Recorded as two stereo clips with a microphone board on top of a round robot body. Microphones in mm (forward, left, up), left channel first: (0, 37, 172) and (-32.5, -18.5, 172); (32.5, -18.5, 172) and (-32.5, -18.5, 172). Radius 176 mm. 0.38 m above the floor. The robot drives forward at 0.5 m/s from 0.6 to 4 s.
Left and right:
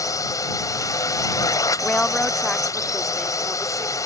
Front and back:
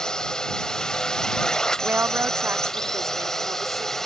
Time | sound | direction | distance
0.0 | a drone | 80° left | ?
1.8 | a woman speaking | 125° left | ?